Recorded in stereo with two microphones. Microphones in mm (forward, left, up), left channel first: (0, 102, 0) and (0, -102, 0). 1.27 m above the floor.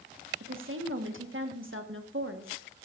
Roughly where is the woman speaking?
Right.